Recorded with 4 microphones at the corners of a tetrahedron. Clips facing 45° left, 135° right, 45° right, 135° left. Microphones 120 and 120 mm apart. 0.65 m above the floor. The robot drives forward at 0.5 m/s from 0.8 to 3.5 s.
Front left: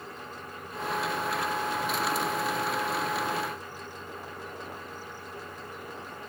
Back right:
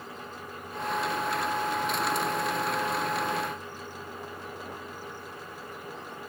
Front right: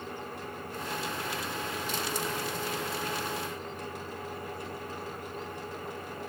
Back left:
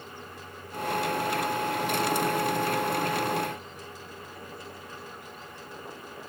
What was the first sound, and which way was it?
Only background noise.